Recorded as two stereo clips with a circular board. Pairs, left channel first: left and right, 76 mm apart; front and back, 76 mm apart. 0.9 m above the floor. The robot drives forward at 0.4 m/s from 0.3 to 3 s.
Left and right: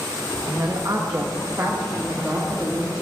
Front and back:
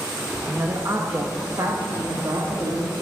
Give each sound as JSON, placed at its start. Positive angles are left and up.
{"t": 0.5, "sound": "a woman speaking", "azimuth_deg": -125, "distance_m": 0.6}